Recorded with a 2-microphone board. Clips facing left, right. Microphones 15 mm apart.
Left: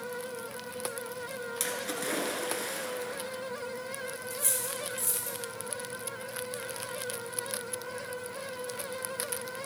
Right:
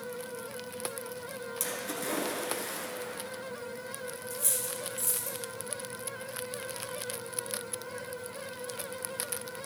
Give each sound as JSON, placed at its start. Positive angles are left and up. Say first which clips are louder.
{"t": 1.6, "sound": "a splash", "louder": "left 2 dB", "side_deg": 25, "distance_m": 1.3}
{"t": 4.3, "sound": "cutlery clinking", "louder": "even", "side_deg": 0, "distance_m": 2.0}